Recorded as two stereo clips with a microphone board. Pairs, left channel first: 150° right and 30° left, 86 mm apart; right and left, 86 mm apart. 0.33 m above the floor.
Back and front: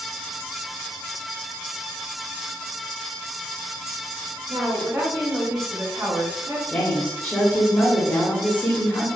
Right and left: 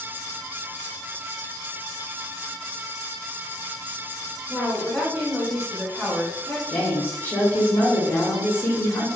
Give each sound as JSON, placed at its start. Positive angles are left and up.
{"t": 4.5, "sound": "a woman speaking", "azimuth_deg": -5, "distance_m": 1.3}
{"t": 6.7, "sound": "a woman speaking", "azimuth_deg": -110, "distance_m": 1.0}